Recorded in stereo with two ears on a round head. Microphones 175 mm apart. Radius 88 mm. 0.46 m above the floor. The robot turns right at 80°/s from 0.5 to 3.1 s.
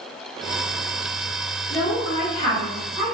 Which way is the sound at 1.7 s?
75° left.